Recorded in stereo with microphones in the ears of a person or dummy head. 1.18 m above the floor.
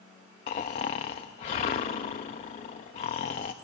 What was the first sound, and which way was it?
Snoring, 30° left (ahead or behind).